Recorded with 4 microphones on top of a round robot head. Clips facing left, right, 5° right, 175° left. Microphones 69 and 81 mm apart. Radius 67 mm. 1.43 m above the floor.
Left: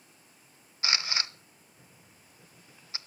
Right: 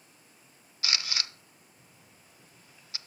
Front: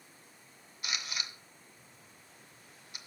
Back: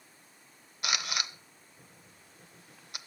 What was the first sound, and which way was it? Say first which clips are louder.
A camera shutter: left 2 dB, back 6 dB; 155° left.